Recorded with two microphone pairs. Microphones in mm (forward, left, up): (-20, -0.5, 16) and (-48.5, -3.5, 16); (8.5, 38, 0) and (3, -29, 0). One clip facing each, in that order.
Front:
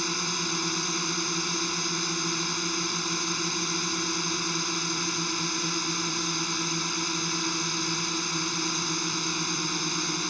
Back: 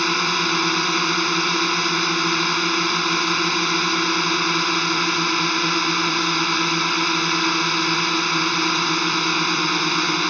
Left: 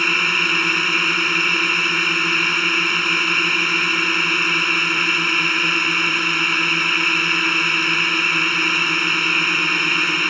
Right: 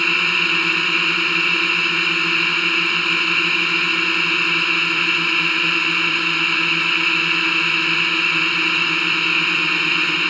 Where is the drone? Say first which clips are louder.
Back 10 dB, even; 170° left.